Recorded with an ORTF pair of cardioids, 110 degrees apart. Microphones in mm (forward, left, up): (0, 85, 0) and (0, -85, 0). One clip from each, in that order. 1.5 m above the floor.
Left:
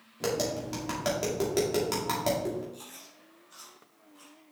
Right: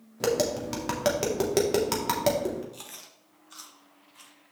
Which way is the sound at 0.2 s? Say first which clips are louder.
Right 4 dB; 30° right.